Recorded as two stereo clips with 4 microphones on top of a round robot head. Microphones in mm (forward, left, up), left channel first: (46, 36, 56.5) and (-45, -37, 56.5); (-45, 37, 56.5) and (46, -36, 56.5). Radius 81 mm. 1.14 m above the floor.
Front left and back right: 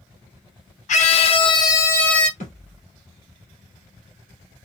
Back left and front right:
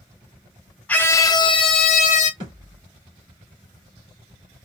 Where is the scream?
65° left, 0.9 m; by 2.3 s 125° left, 1.0 m.